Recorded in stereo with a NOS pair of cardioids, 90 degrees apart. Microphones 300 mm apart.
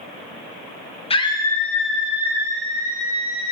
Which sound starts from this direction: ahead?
A scream, at 1.1 s.